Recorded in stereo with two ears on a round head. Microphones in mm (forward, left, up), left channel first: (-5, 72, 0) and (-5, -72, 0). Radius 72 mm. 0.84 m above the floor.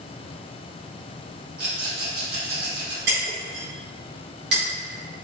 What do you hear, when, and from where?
1.6 s a rattle: 60° right (ahead or behind), 1.8 m
3.1 s breaking glass: 75° right (ahead or behind), 1.4 m